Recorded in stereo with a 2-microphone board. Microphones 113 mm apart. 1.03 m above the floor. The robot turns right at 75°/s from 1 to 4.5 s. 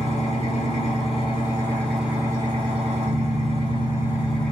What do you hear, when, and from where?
0.0 s an engine running: 110° left, 1.6 m; by 4.5 s 10° left, 1.6 m